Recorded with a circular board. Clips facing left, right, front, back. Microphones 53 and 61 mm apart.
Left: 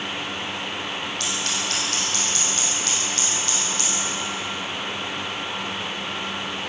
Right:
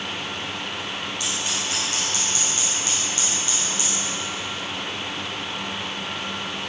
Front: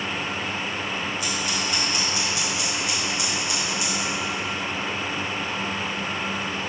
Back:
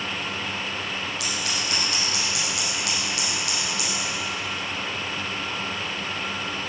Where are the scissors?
170° right, 6 m.